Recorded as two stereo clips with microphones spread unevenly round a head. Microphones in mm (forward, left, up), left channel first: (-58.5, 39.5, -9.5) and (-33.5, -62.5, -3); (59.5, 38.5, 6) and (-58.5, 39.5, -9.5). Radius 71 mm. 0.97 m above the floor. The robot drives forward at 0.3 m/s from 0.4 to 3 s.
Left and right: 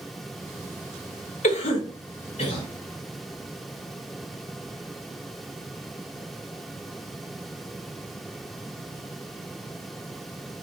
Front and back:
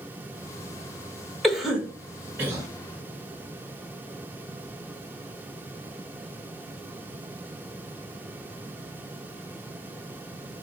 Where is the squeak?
No squeak in this recording.